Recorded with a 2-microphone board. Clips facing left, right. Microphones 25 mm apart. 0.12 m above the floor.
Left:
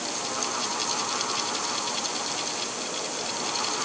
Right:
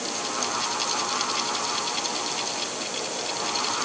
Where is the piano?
No piano in this recording.